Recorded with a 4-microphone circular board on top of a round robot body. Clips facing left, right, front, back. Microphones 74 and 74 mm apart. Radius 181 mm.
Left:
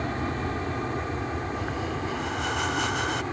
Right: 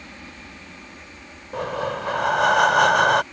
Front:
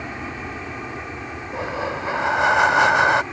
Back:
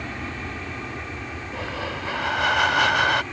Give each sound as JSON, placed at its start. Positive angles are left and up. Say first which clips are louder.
{"t": 0.0, "sound": "an aircraft", "louder": "left 12 dB, front 2 dB", "azimuth_deg": 75}
{"t": 1.5, "sound": "breathing", "louder": "right 4 dB, front 5 dB", "azimuth_deg": -65}